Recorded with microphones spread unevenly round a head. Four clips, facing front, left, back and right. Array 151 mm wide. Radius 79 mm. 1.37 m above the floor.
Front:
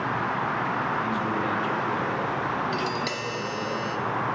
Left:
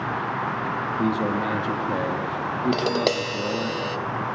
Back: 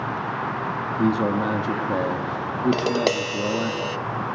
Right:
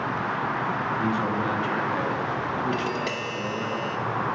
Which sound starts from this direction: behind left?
Tapping, at 2.7 s.